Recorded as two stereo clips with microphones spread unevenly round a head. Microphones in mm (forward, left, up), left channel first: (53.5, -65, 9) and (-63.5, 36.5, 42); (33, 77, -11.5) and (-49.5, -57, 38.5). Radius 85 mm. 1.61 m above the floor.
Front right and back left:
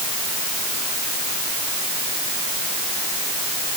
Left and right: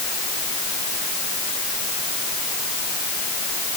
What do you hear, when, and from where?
Only background noise.